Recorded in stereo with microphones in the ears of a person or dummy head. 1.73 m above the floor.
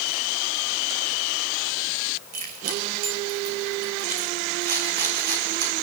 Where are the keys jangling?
45° right (ahead or behind), 5.5 m.